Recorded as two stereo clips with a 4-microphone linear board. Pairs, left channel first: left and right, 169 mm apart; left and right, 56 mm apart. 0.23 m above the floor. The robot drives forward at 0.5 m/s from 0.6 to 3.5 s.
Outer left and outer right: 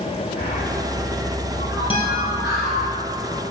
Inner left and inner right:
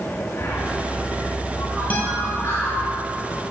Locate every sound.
0.4 s a bird: 65° left (ahead or behind), 3.5 m
1.9 s a guitar: 30° left (ahead or behind), 3.5 m; by 2.2 s 35° left (ahead or behind), 3 m